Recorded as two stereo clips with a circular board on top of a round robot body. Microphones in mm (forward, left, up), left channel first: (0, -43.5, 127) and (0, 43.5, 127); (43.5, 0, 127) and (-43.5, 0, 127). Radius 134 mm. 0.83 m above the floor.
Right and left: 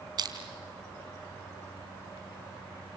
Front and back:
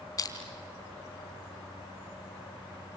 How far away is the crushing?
About 3 m.